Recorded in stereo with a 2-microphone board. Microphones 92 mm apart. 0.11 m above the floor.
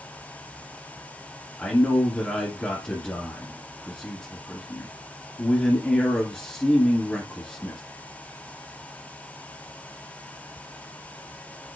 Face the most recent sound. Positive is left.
turn(degrees=5)  # may be behind; listen again after turning